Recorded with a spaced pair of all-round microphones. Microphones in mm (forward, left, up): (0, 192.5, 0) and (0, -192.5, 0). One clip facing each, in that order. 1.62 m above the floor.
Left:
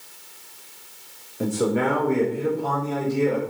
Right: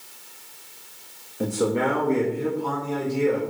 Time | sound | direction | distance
1.4 | a man speaking | centre (ahead or behind) | 0.6 m